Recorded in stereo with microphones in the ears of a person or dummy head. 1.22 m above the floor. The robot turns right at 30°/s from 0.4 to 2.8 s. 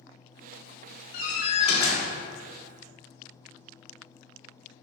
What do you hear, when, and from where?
1.1 s a door slam: 55° left (ahead or behind), 1.4 m; by 2.1 s 30° left (ahead or behind), 1.4 m